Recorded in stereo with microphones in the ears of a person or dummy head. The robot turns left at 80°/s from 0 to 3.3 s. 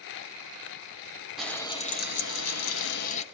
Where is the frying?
175° right, 1.0 m; by 3.2 s 35° left, 1.0 m.